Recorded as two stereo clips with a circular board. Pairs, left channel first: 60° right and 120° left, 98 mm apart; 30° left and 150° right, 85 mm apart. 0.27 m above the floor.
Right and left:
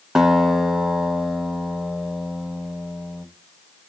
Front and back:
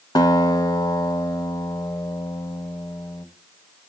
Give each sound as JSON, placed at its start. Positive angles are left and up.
{"t": 0.1, "sound": "a guitar", "azimuth_deg": 35, "distance_m": 1.0}